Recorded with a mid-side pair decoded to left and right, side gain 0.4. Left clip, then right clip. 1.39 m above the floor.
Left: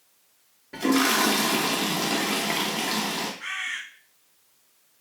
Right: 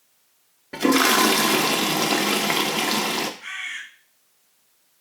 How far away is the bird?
About 2 m.